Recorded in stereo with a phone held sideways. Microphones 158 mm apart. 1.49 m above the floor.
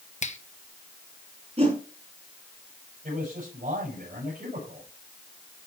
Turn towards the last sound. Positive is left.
turn(degrees=-60)  # may be behind; listen again after turning